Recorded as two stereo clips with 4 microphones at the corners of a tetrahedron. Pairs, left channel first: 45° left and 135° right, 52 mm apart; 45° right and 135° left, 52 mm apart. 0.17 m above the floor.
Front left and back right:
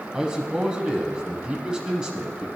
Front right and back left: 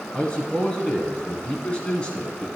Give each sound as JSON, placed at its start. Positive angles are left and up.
{"t": 0.1, "sound": "a man speaking", "azimuth_deg": -80, "distance_m": 1.3}